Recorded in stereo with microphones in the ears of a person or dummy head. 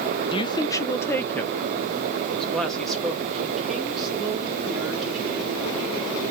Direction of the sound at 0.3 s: 25° left (ahead or behind).